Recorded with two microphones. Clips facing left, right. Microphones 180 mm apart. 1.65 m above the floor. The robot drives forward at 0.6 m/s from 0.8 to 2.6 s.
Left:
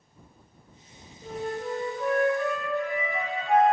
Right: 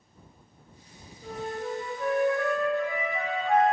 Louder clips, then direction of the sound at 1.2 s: Left 2 dB; 30° left (ahead or behind).